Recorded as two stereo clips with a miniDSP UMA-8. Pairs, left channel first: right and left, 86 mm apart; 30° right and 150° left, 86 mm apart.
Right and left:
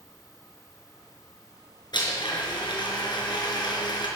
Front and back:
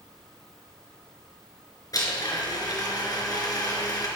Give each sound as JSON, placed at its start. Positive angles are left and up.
{"t": 1.9, "sound": "a blender", "azimuth_deg": -70, "distance_m": 4.0}